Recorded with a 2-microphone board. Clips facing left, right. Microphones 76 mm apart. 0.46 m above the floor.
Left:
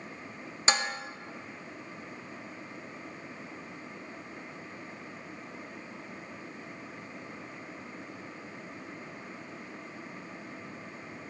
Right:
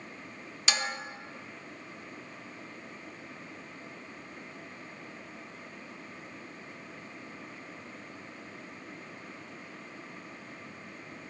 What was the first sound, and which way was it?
Dishes clattering, 30° left (ahead or behind).